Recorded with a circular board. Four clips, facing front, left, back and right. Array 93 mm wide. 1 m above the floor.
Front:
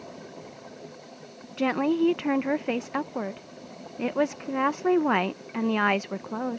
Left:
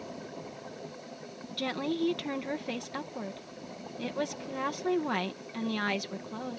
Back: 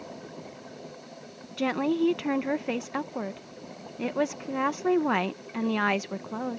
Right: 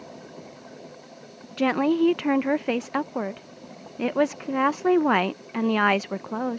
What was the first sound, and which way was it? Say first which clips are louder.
A woman speaking: right 10 dB, front 2 dB; 80° right.